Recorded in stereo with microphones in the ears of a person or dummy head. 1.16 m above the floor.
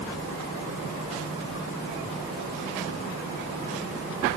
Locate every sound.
Only background noise.